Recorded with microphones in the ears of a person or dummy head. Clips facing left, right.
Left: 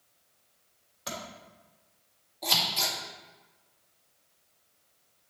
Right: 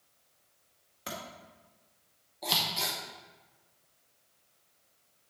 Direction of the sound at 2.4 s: 5° right (ahead or behind).